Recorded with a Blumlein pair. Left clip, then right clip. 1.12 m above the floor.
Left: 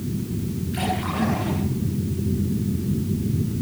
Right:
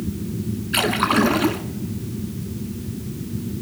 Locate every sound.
0.7 s a splash: 45° right, 2 m